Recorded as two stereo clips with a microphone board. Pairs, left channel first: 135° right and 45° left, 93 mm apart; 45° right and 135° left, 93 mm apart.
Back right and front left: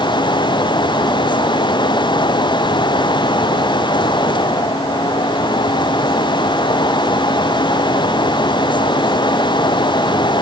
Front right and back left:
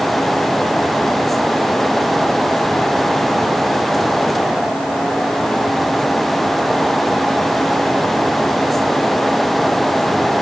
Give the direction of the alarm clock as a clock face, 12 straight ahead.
I don't hear an alarm clock.